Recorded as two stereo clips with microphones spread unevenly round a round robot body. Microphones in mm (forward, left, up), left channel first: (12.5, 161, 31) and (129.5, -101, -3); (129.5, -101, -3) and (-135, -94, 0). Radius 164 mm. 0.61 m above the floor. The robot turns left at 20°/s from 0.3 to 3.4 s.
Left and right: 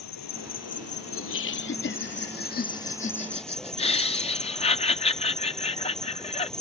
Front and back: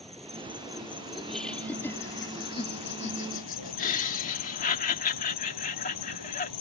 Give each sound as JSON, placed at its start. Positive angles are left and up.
{"t": 0.0, "sound": "an insect", "azimuth_deg": 90}
{"t": 1.1, "sound": "laughter", "azimuth_deg": 90}